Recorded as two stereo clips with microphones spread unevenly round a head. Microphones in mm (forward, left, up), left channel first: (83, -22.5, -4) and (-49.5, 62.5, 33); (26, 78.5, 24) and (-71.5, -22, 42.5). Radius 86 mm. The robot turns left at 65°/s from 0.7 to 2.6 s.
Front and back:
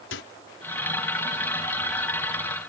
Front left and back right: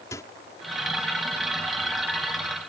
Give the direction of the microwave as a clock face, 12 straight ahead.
1 o'clock.